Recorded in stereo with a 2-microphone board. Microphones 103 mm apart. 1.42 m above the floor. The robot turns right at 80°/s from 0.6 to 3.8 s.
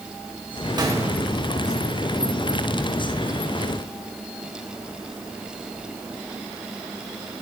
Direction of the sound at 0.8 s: 40° right.